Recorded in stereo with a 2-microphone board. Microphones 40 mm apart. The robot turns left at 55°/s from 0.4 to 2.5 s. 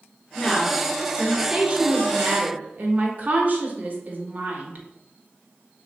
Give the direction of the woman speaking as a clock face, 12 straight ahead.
11 o'clock.